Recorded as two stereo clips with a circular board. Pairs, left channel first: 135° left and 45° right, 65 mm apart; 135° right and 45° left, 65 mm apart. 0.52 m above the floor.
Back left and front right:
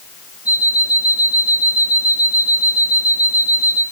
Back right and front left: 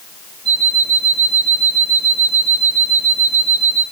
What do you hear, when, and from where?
0.5 s an alarm clock: 120° left, 6 m